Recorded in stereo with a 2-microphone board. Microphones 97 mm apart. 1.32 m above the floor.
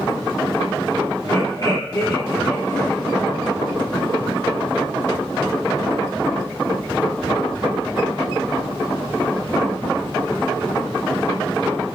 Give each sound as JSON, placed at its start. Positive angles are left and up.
{"t": 1.2, "sound": "laughter", "side_deg": 40, "distance_m": 2.5}